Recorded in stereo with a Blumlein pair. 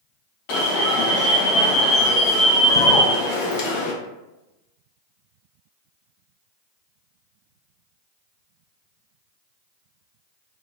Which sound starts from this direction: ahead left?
An alarm, at 0.5 s.